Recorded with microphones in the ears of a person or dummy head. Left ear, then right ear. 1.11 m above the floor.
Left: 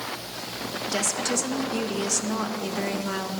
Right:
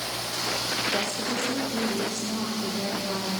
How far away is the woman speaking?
About 1.7 m.